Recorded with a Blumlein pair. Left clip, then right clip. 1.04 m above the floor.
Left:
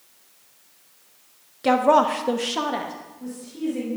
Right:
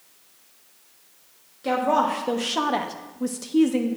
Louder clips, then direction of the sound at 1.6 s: Left 4 dB; 25° left.